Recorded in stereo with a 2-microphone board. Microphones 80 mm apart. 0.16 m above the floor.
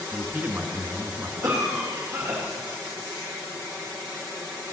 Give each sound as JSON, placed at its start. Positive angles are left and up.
{"t": 0.1, "sound": "a man speaking", "side_deg": -30, "distance_m": 1.5}
{"t": 1.4, "sound": "a cough", "side_deg": -55, "distance_m": 6.0}